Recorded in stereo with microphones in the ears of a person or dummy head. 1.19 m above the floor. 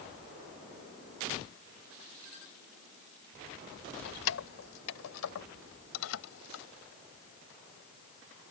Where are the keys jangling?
80° left.